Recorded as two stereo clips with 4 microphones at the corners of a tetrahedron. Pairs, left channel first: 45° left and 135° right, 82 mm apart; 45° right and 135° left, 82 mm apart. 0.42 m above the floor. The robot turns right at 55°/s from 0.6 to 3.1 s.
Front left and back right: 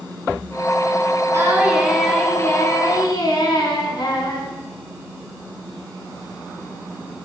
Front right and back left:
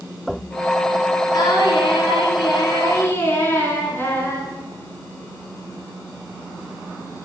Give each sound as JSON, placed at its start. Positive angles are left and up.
{"t": 1.3, "sound": "singing", "azimuth_deg": -80, "distance_m": 1.1}